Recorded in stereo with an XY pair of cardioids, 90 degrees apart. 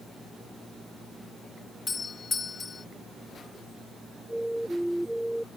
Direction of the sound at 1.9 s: 40° left.